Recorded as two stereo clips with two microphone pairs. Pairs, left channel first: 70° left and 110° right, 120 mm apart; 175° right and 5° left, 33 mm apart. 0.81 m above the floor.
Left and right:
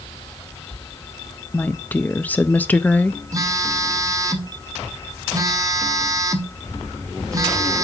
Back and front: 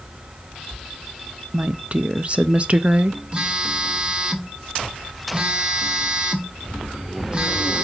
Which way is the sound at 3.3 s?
50° right.